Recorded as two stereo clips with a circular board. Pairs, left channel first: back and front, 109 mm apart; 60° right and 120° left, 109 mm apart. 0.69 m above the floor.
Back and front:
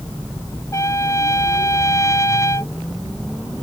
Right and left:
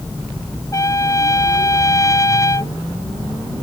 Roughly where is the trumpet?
Behind right.